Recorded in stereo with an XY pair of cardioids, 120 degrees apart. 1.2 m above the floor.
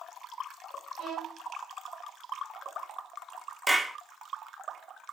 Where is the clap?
15° right, 1.6 m.